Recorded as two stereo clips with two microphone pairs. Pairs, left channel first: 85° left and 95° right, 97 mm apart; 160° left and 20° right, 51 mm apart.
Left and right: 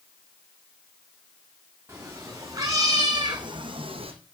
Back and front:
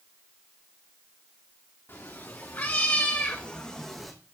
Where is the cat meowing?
160° right, 3 m; by 4.1 s 110° right, 1.5 m.